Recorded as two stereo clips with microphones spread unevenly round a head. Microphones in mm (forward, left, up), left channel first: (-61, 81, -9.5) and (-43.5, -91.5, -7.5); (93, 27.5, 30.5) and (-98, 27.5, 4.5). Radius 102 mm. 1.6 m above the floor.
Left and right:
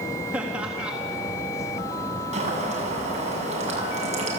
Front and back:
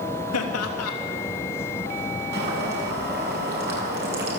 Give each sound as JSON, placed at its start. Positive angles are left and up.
{"t": 0.3, "sound": "laughter", "azimuth_deg": 0, "distance_m": 3.5}
{"t": 2.3, "sound": "boiling", "azimuth_deg": -135, "distance_m": 7.0}